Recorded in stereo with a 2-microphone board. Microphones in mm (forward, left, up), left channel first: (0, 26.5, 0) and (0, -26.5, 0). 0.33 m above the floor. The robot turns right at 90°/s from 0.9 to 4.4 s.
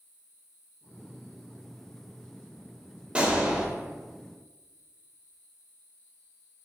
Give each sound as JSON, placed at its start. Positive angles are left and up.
{"t": 3.1, "sound": "a gunshot", "side_deg": -20, "distance_m": 0.5}